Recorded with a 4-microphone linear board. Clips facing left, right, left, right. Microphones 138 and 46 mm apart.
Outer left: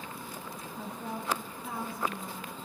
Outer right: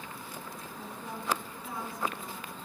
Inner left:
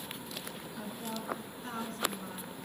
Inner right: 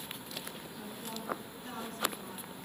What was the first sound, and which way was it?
A woman speaking, 60° left (ahead or behind).